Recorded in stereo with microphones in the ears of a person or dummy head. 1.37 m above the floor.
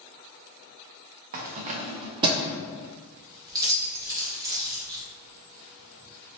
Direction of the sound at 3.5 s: 20° right (ahead or behind).